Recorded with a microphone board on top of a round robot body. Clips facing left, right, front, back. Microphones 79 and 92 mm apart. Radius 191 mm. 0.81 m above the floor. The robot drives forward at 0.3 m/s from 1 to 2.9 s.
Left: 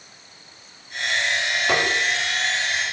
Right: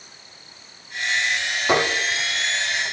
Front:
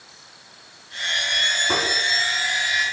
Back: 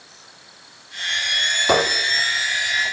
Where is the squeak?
165° right, 2.5 m; by 2.9 s 170° right, 3 m.